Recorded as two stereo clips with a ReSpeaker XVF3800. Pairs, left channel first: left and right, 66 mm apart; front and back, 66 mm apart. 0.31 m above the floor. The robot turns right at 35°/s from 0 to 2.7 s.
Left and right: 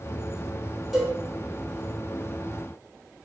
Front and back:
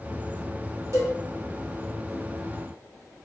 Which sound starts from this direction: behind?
A cowbell, at 0.9 s.